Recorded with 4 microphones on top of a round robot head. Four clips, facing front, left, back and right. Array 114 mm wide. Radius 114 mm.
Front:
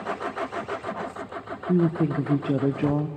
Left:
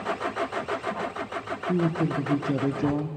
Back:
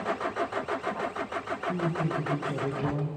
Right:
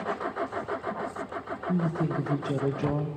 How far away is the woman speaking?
About 1.1 m.